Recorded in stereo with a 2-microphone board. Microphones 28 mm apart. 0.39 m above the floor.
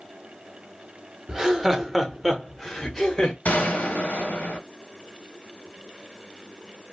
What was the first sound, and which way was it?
Laughter, 20° right (ahead or behind).